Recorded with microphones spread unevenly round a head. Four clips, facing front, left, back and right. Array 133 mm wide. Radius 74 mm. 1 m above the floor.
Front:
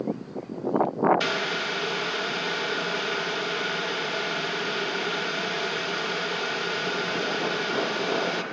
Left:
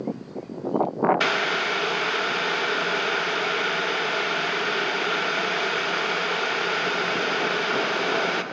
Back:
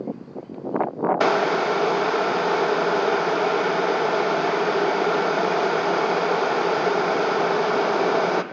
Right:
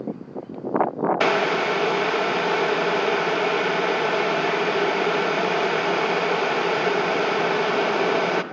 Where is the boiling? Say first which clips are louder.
Right 4 dB, back 9 dB; 155° right, 1.0 m.